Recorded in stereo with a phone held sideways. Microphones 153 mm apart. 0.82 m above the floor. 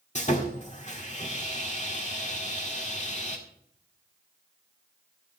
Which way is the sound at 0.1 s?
50° left (ahead or behind).